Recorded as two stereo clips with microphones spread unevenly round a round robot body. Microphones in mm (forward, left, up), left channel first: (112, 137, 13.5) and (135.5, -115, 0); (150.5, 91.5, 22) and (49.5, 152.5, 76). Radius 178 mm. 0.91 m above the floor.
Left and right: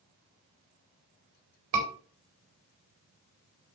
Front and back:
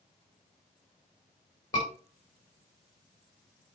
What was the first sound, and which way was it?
A scream, 100° right.